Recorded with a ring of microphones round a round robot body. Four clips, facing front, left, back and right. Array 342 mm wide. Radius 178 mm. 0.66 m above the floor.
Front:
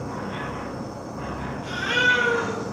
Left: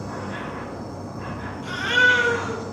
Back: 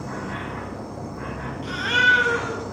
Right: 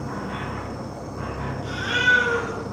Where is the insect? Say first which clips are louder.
Right 1 dB, even; 110° right, 3 m.